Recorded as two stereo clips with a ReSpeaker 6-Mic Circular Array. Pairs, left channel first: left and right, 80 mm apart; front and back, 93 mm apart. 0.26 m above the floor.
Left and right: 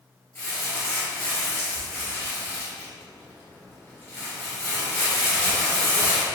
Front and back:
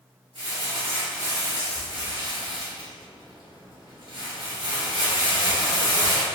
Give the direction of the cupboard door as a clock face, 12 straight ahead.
I don't hear a cupboard door.